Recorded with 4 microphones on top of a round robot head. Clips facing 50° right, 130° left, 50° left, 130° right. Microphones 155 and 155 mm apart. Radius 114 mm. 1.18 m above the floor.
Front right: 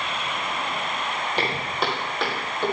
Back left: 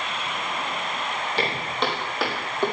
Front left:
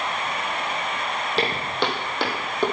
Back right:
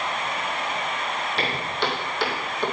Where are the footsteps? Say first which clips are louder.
Back left 1 dB, front left 4 dB; 25° left, 2 m; by 2.7 s 60° left, 2.5 m.